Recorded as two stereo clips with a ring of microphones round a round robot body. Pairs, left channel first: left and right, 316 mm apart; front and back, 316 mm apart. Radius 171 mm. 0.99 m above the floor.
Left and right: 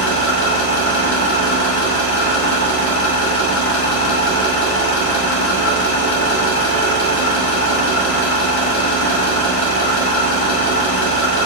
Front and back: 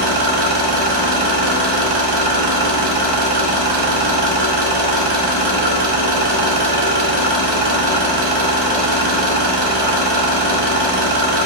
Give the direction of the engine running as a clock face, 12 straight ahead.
7 o'clock.